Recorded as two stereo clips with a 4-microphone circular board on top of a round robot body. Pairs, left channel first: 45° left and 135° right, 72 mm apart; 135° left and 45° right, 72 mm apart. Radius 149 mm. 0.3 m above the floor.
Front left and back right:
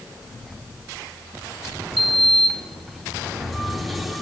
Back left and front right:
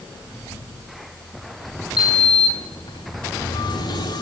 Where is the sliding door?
135° left, 3.5 m.